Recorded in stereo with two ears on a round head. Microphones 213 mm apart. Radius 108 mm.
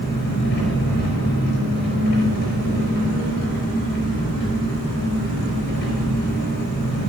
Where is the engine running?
50° left (ahead or behind), 5 m.